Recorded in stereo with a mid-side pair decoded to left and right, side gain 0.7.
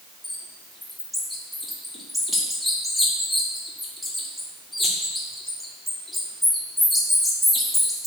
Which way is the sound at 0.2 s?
5° left.